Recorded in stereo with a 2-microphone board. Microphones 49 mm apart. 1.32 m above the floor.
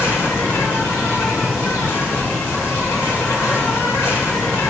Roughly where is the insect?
Left.